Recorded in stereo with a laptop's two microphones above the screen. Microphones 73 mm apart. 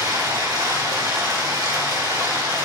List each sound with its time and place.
0.0 s running water: 75° right (ahead or behind), 1.9 m